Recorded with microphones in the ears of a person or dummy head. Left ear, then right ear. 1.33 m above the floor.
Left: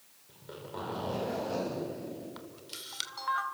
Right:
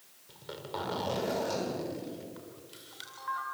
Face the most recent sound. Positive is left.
turn(degrees=40)  # may be behind; listen again after turning